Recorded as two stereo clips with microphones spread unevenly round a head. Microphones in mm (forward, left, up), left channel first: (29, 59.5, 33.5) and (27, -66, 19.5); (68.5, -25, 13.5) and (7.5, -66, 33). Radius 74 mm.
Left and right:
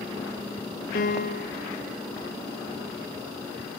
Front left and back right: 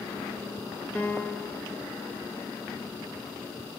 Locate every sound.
0.9 s a piano: 110° left, 0.6 m